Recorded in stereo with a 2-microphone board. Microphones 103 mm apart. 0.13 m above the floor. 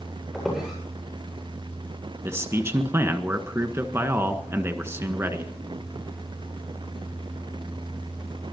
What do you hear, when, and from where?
0.3 s a squeak: 5° right (ahead or behind), 8 m
2.2 s a man speaking: 25° right (ahead or behind), 1.5 m